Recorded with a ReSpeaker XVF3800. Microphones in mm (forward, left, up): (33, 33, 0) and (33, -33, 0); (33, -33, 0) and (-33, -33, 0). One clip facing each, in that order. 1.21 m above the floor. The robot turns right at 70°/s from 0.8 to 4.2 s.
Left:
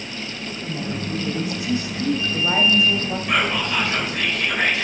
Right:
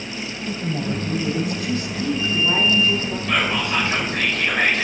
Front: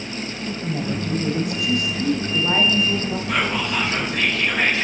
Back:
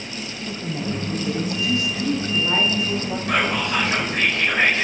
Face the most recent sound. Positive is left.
turn(degrees=-125)